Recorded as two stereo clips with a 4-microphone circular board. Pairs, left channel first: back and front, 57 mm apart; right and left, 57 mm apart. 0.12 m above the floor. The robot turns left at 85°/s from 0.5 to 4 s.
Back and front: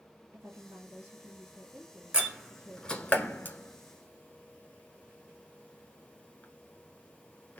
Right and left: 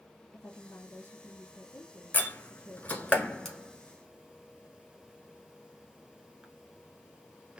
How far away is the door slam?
About 1.2 m.